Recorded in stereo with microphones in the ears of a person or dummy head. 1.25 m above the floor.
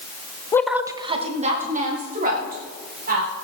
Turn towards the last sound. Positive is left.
turn(degrees=-50)  # may be behind; listen again after turning